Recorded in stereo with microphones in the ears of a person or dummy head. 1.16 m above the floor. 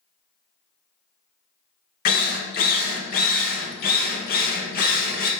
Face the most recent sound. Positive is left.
turn(degrees=50)  # may be behind; listen again after turning